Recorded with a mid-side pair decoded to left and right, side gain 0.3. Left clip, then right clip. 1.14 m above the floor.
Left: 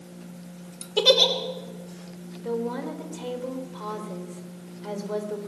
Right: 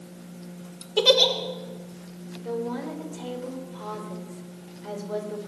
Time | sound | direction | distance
1.0 | a giggle | 15° left | 3 m
2.4 | a woman speaking | 45° left | 4 m